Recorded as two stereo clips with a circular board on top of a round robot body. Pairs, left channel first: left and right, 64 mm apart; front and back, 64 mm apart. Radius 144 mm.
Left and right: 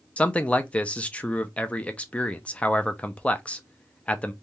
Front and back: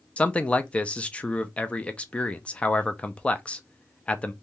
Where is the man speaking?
45° left, 0.7 m.